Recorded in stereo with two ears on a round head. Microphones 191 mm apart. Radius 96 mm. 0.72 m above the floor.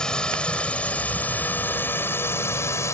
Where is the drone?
5° left (ahead or behind); by 2.9 s 15° left (ahead or behind).